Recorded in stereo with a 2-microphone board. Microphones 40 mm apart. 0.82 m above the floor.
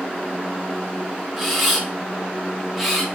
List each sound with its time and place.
1.4 s a camera shutter: 5° right (ahead or behind), 0.7 m